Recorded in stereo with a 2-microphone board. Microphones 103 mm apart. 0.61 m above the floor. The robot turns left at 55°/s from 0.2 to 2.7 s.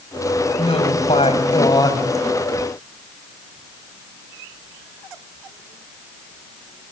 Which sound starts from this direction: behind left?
A woman speaking, at 0.6 s.